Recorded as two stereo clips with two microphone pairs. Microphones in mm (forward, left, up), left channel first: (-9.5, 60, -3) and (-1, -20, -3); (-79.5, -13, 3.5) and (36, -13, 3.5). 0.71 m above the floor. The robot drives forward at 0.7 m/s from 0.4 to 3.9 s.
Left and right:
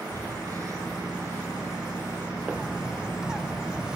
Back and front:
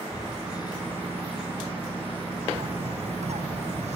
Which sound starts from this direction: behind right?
Breathing, at 0.1 s.